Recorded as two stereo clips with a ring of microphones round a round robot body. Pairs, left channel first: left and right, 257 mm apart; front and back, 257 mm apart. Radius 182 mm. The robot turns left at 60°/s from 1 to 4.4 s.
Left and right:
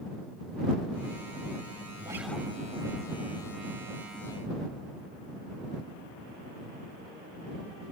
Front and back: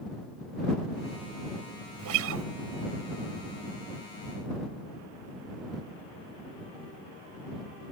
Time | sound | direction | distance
2.0 | a guitar | 165° right | ?